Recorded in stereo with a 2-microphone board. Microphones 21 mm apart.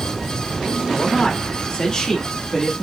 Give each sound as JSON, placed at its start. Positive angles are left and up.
{"t": 0.9, "sound": "a man speaking", "side_deg": 55, "distance_m": 1.8}